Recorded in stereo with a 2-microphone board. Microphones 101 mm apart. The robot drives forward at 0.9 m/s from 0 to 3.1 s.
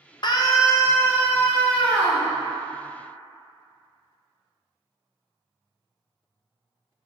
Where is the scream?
45° left (ahead or behind), 0.7 m; by 2.3 s 15° left (ahead or behind), 2.5 m.